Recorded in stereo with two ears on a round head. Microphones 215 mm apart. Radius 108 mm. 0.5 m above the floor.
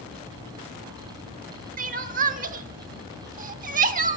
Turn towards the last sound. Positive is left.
turn(degrees=-35)  # may be behind; listen again after turning